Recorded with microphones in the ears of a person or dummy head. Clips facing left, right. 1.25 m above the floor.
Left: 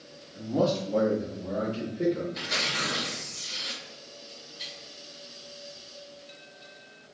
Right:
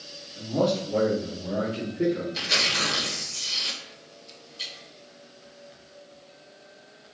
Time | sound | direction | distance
0.3 | a man speaking | 10° left (ahead or behind) | 0.5 m
2.3 | tearing paper | 50° right (ahead or behind) | 0.9 m